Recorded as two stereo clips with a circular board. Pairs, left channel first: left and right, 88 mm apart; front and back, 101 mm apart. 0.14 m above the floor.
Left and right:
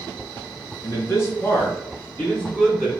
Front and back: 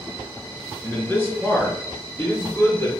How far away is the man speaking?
About 2 m.